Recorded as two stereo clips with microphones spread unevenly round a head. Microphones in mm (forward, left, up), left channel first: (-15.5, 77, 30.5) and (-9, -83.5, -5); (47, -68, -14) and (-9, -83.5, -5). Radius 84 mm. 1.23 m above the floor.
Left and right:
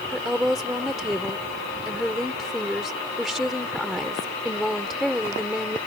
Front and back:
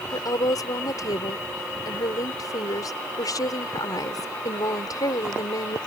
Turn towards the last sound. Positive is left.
turn(degrees=5)